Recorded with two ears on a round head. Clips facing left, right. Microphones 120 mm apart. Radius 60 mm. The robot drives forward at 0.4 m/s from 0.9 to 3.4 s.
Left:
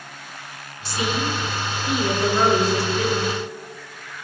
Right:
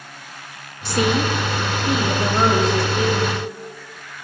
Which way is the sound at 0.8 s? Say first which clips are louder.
Right 5 dB; 50° right (ahead or behind).